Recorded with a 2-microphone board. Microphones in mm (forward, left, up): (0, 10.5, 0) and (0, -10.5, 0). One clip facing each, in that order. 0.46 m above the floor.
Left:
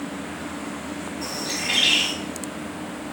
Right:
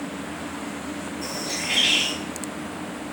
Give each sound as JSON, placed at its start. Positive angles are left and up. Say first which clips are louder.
{"t": 1.2, "sound": "a bird", "louder": "left 2 dB", "side_deg": 60, "distance_m": 1.6}